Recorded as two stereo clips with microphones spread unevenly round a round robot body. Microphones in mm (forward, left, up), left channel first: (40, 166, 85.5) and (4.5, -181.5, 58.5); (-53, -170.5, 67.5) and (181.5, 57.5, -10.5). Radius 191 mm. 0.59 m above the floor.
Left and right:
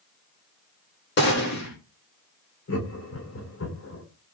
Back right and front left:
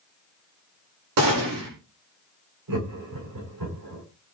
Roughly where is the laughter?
Ahead left.